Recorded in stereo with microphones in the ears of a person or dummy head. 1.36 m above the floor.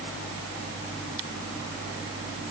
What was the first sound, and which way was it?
Only background noise.